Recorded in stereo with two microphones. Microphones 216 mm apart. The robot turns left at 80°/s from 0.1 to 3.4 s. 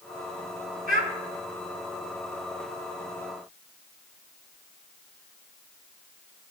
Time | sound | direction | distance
0.9 | a child speaking | 40° right (ahead or behind) | 2.5 m